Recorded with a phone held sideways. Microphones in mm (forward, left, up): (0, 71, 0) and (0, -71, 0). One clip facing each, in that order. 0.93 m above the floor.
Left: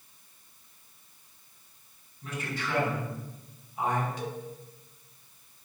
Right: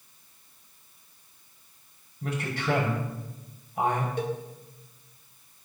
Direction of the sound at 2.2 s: 85° right.